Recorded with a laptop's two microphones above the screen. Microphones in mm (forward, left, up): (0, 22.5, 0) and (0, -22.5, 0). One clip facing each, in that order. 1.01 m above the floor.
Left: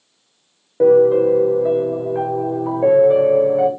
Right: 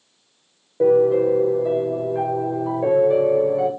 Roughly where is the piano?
Left.